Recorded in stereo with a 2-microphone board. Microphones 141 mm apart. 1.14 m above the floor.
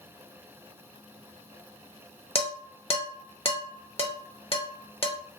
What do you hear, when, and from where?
2.4 s dishes clattering: 45° left (ahead or behind), 0.6 m